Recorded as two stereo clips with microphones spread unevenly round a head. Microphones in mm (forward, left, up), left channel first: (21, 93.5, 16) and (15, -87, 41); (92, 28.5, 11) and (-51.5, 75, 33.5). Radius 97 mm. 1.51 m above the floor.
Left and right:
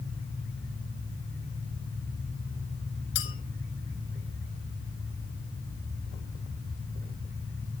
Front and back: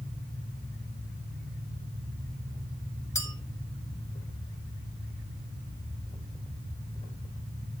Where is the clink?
55° left, 2 m.